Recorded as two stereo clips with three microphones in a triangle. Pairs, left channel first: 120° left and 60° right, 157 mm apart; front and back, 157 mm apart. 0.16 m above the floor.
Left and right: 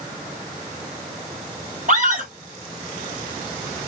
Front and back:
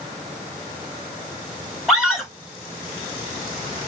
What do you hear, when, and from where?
1.9 s a scream: 95° right, 3.5 m